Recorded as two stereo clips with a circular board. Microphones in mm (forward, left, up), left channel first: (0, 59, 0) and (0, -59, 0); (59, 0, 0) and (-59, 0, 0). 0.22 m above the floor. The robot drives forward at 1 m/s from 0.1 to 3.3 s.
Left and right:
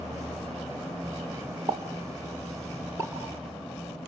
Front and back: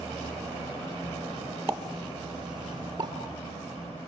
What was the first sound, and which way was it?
A pop, 115° right.